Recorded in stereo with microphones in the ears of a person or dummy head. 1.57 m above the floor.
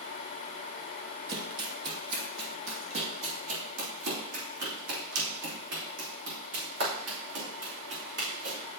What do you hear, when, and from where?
1.3 s running footsteps: 25° right (ahead or behind), 2 m; by 8.6 s 70° right (ahead or behind), 6.5 m